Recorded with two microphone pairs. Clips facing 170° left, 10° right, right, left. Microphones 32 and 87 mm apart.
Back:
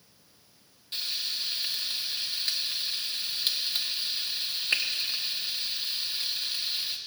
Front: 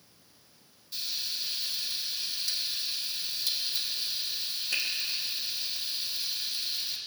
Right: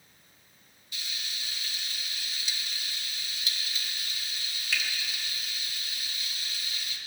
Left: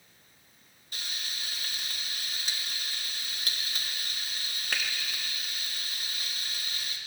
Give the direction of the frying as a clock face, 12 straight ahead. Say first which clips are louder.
Back 3 dB, left 1 dB; 8 o'clock.